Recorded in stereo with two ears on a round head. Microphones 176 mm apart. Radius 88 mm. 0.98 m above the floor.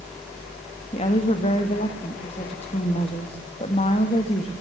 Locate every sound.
0.9 s a woman speaking: 35° left (ahead or behind), 1.6 m